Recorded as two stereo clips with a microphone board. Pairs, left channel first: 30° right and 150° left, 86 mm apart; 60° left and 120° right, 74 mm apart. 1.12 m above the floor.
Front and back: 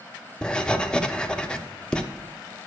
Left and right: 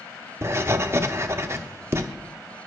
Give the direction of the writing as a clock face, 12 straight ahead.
4 o'clock.